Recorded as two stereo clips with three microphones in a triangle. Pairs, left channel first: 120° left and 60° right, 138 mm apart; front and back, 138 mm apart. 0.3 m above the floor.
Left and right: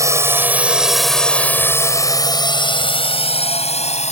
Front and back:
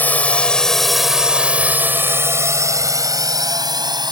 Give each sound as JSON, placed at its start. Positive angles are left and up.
{"t": 0.0, "sound": "a drone", "azimuth_deg": -55}